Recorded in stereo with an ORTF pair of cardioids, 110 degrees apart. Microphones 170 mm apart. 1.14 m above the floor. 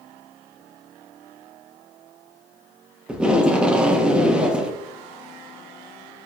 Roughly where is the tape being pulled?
Ahead.